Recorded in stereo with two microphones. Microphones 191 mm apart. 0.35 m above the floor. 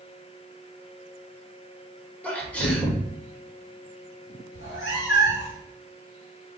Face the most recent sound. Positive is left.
turn(degrees=75)  # may be behind; listen again after turning